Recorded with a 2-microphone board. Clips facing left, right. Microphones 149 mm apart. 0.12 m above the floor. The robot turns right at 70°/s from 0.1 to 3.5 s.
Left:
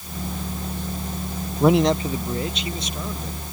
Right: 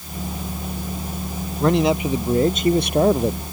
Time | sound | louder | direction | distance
1.6 | a man speaking | even | 165° left | ?